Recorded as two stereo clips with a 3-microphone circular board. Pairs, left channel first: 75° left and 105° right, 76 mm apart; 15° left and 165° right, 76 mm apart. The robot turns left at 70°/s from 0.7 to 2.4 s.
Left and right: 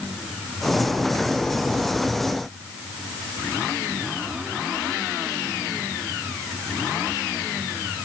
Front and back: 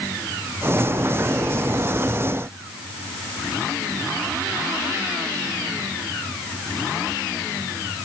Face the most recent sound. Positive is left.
No sound to turn to.